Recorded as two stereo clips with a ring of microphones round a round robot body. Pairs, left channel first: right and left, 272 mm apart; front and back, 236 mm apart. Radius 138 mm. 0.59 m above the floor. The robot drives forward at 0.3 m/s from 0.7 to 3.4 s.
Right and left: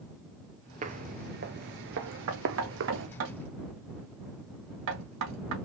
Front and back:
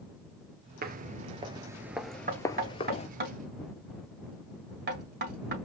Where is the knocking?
130° left, 2 m; by 5.5 s 135° left, 2.5 m.